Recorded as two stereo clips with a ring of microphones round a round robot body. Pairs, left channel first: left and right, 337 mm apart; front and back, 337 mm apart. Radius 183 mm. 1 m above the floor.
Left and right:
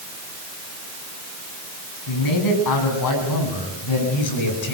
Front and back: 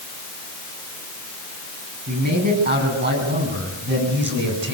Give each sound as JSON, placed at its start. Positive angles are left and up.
{"t": 2.1, "sound": "a man speaking", "azimuth_deg": 115, "distance_m": 8.5}